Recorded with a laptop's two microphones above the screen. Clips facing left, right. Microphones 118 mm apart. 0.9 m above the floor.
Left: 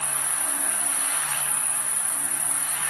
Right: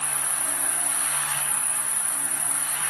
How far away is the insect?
About 4 m.